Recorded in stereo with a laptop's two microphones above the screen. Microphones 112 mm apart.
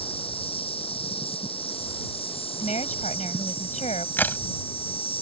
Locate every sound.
0.0 s an insect: 55° left (ahead or behind)
2.6 s a woman speaking: 85° left
4.2 s a crack: 15° left (ahead or behind)